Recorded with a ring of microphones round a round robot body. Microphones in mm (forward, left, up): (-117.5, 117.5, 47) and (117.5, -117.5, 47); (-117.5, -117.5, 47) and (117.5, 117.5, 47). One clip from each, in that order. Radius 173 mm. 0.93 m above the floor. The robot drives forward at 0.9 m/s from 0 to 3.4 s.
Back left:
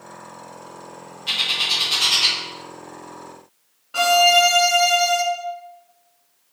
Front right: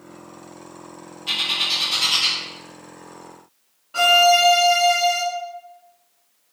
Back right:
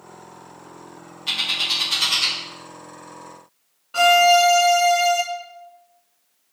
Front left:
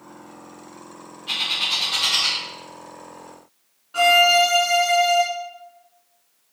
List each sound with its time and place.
1.3 s a bird: 140° right, 1.6 m; by 2.4 s 155° right, 2.5 m
3.9 s a violin: 155° right, 0.9 m